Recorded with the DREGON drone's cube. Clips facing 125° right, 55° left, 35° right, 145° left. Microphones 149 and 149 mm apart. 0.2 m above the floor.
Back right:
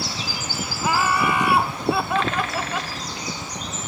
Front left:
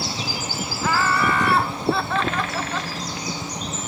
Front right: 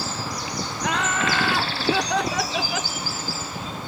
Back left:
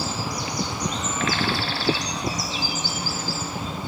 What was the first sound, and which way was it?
Laughter, 50° right.